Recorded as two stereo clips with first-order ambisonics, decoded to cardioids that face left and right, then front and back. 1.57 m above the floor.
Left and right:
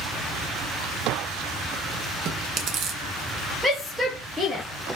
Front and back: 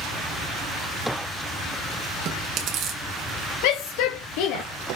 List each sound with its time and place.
2.2 s chewing: 130° right, 2.5 m
3.6 s a shout: straight ahead, 1.8 m